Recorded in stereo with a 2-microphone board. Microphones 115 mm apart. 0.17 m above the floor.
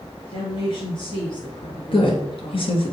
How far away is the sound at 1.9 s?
About 2.5 m.